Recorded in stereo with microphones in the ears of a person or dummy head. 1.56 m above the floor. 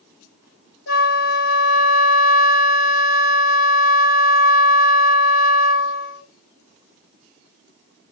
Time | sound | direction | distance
0.9 | a flute | 75° left (ahead or behind) | 1.1 m